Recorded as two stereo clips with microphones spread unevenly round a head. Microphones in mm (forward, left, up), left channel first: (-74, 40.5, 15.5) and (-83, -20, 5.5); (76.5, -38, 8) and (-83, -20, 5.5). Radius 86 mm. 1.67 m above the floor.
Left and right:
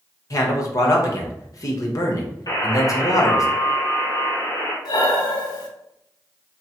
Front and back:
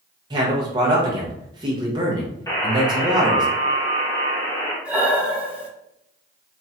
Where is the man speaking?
105° left, 1.0 m.